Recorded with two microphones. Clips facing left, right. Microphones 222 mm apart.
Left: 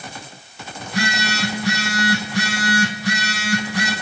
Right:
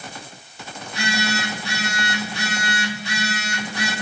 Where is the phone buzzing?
85° left, 4.5 m.